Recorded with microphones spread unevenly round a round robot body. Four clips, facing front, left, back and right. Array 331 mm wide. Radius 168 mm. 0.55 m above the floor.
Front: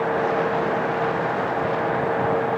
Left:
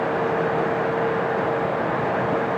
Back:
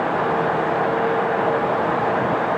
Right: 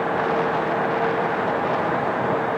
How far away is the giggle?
No giggle in this recording.